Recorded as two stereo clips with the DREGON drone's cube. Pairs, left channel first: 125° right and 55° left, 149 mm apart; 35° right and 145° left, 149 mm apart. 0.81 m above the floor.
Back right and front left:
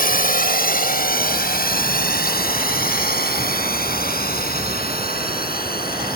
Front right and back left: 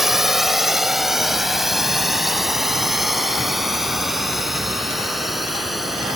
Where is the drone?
125° right.